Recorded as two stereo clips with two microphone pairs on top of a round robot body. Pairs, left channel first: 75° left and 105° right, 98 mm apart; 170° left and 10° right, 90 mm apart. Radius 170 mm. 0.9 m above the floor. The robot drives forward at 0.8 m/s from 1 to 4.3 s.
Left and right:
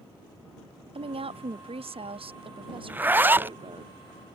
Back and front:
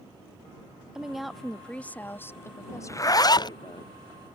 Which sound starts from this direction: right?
A woman speaking, at 0.9 s.